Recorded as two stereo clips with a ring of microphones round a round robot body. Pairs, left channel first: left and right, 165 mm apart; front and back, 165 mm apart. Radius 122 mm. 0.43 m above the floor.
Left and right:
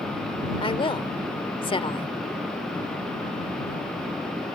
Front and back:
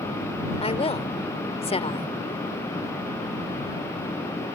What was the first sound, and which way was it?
A woman speaking, 40° left.